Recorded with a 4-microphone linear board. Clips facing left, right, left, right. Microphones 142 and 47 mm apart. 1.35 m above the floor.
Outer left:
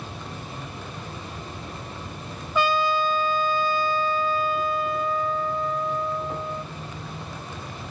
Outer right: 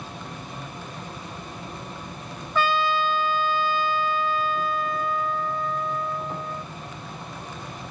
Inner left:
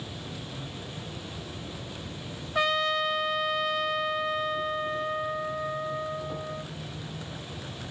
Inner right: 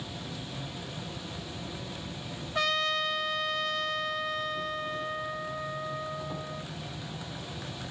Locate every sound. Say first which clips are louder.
0.0 s an insect: even, even; 5° left (ahead or behind), 5 m
2.5 s a trumpet: outer left 1 dB, inner left 3 dB; 15° left (ahead or behind), 2.5 m